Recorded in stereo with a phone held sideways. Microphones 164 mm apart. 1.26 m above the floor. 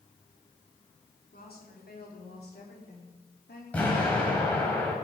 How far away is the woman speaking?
About 4 m.